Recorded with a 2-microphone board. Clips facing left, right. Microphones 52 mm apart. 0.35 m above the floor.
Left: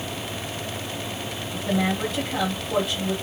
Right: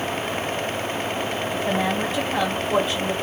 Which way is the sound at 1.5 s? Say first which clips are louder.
Even; 30° right (ahead or behind).